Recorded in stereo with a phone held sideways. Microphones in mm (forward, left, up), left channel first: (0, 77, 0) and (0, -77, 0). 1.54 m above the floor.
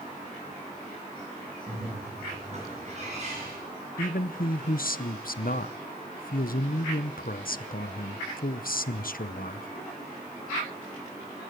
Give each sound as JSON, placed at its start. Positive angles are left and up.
{"t": 1.7, "sound": "a bird", "side_deg": -45, "distance_m": 9.5}
{"t": 4.0, "sound": "a man speaking", "side_deg": 70, "distance_m": 0.8}